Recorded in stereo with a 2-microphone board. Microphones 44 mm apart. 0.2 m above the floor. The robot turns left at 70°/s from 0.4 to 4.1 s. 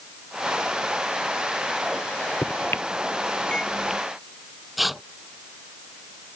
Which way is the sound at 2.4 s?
70° left (ahead or behind).